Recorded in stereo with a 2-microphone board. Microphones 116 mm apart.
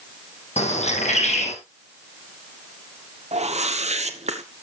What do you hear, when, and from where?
0.6 s a bird: 80° left, 2 m
3.3 s a whoosh: 75° right (ahead or behind), 1.3 m